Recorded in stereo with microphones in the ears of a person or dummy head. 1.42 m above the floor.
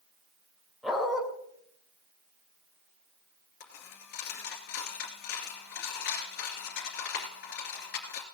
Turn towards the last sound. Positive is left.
turn(degrees=50)  # may be behind; listen again after turning